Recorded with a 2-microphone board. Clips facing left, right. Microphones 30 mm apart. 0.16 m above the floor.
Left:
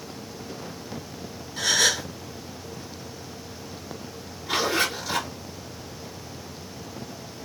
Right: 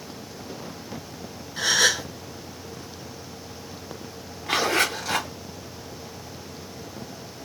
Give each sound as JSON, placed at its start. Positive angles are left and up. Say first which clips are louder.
{"t": 1.6, "sound": "a gasp", "louder": "right 1 dB", "side_deg": -20, "distance_m": 1.4}
{"t": 4.5, "sound": "a zipper", "louder": "right 2 dB", "side_deg": -60, "distance_m": 1.7}